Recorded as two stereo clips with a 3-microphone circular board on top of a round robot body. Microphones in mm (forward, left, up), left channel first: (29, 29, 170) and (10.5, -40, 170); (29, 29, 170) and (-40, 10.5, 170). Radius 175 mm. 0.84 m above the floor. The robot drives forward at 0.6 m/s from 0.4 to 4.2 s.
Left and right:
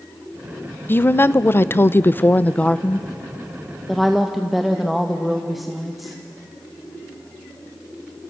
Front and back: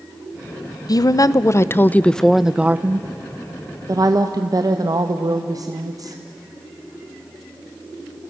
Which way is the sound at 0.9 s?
20° left.